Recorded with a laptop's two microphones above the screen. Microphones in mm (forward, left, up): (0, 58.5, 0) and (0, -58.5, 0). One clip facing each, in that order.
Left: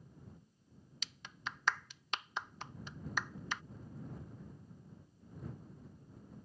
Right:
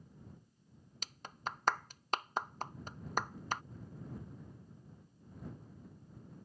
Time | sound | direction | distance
1.0 | a clap | 45° right (ahead or behind) | ?